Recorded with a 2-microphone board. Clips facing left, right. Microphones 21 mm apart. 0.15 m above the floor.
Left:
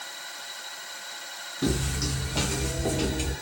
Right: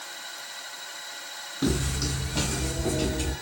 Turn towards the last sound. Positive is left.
turn(degrees=20)  # may be behind; listen again after turning